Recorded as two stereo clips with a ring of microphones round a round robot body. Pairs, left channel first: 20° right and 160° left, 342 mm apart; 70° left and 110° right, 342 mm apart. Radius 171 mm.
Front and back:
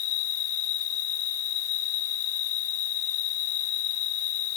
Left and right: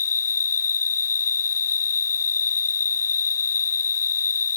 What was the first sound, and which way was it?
An insect, 5° left.